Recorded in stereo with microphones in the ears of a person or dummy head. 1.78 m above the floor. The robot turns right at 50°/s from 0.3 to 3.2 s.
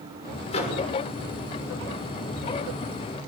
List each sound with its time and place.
0.5 s a microwave: 35° left (ahead or behind), 6.5 m; by 0.8 s 50° left (ahead or behind), 6.5 m